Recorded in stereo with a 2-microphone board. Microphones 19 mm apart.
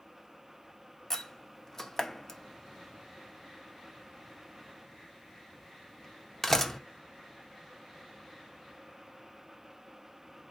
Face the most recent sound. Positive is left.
turn(degrees=25)  # may be behind; listen again after turning